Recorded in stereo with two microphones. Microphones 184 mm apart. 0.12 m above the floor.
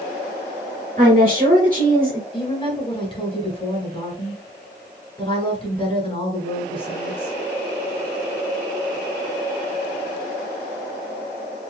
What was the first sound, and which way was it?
A woman speaking, 50° right (ahead or behind).